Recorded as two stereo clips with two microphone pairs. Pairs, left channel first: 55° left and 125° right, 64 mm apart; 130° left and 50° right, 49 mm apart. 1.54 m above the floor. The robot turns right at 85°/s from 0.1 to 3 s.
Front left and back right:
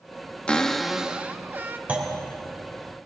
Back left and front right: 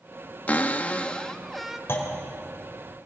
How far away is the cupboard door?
About 1.0 m.